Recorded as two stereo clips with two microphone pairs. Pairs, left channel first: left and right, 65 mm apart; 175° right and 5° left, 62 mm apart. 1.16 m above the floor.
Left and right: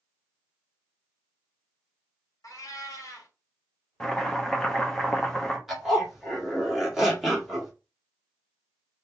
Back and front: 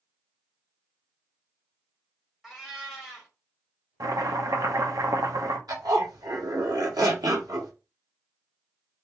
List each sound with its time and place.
2.4 s a cat meowing: 90° left, 1.8 m
4.0 s chopping: 10° left, 1.0 m
5.7 s a zipper: 5° right, 1.6 m